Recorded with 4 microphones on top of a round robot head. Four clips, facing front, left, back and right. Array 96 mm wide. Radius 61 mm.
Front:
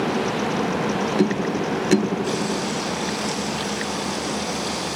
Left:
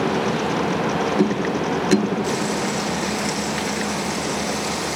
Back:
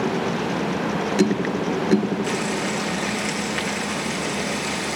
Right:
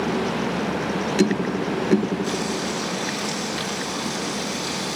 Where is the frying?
150° left, 7 m.